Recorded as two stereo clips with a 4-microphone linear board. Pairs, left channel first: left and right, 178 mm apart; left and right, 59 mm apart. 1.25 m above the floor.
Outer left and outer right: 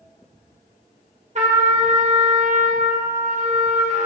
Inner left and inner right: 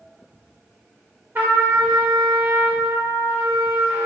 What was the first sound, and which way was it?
A trumpet, 45° right (ahead or behind).